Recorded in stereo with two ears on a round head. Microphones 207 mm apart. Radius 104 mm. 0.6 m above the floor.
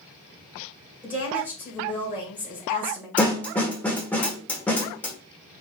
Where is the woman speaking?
5° right (ahead or behind), 2.0 m.